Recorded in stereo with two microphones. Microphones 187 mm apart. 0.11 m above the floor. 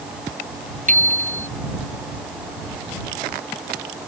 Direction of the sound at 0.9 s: 40° right (ahead or behind).